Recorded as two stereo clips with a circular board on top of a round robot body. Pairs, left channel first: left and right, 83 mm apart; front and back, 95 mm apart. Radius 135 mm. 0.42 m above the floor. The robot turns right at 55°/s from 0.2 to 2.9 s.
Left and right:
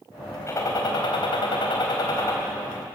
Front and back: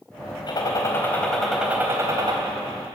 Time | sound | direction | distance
0.5 | a gunshot | 35° left | 3.5 m